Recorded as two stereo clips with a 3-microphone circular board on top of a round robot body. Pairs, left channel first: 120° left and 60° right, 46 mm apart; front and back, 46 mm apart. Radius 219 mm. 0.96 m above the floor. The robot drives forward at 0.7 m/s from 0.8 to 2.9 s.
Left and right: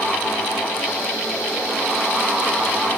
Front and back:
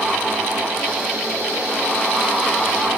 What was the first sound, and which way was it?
Only background noise.